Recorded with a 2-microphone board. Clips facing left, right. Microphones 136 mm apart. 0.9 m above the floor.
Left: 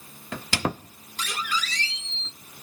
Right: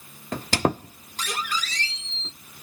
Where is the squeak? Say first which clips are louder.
Right 5 dB; 40° right (ahead or behind), 0.7 m.